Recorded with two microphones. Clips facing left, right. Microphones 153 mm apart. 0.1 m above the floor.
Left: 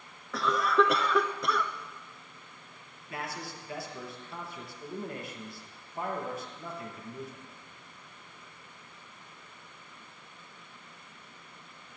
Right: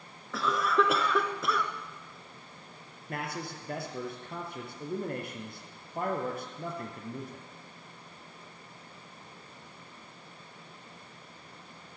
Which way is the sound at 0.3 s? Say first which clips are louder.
Left 2 dB; centre (ahead or behind).